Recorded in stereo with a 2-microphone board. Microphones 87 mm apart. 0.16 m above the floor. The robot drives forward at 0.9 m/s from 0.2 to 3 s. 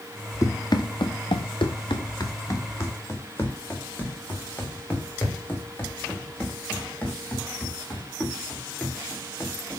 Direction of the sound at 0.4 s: 40° left (ahead or behind).